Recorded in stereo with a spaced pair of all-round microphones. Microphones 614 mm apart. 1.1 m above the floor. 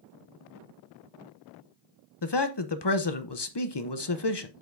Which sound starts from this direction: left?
A man speaking, at 2.2 s.